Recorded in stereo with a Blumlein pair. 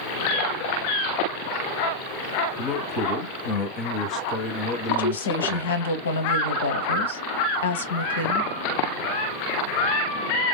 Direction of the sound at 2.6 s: 35° left.